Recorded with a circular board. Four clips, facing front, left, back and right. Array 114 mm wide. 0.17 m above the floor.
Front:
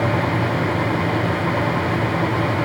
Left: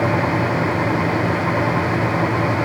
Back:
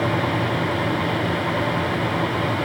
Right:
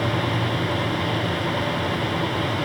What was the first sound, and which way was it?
Only background noise.